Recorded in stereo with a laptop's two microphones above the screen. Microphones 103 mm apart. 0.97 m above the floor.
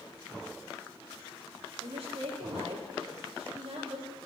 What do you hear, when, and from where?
1.8 s a woman speaking: 75° right (ahead or behind), 2.5 m